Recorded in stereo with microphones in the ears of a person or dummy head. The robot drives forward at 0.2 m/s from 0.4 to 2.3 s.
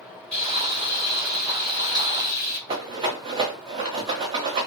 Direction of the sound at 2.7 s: 25° right (ahead or behind).